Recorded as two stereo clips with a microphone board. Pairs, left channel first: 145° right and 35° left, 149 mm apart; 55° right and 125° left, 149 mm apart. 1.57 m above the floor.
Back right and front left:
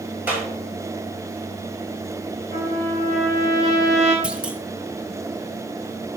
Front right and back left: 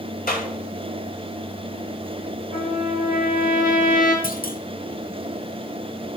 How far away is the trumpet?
About 6 m.